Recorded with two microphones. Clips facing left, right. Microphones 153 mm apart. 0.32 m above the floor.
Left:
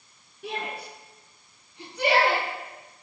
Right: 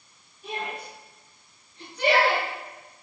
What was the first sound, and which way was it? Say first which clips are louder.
A shout: even; 70° left (ahead or behind).